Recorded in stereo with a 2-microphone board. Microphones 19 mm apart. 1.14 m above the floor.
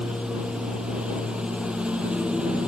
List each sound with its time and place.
0.0 s a lawn mower: 70° right (ahead or behind)